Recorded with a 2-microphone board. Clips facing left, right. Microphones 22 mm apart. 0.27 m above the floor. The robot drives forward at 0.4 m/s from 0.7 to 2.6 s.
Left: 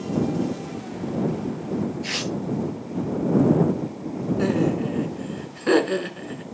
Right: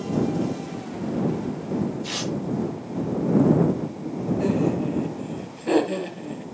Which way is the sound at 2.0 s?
55° left (ahead or behind).